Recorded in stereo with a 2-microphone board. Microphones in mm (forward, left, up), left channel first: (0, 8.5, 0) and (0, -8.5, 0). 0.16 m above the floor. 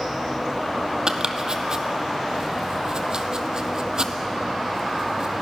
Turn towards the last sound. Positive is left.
turn(degrees=-40)  # may be behind; listen again after turning